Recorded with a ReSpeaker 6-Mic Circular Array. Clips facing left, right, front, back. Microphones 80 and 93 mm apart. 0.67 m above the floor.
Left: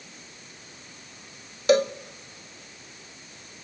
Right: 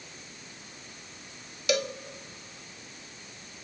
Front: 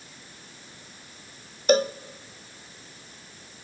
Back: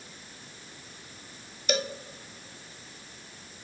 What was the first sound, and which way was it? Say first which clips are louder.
A cowbell: left 8 dB, front 9 dB; 45° left.